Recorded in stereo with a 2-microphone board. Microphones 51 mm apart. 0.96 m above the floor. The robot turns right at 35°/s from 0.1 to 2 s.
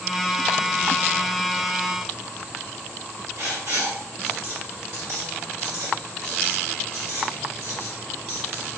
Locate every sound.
3.4 s writing: 75° right (ahead or behind), 1.6 m